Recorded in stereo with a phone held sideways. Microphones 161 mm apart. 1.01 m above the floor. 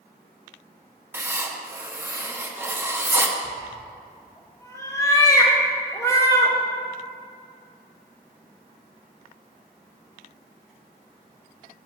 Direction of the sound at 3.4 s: 20° left (ahead or behind).